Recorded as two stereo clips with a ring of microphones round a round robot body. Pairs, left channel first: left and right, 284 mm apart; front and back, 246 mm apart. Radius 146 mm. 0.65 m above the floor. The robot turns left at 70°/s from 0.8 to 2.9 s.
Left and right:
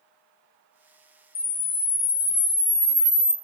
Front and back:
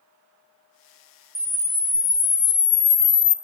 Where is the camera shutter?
115° left, 0.8 m; by 3.3 s 5° left, 0.8 m.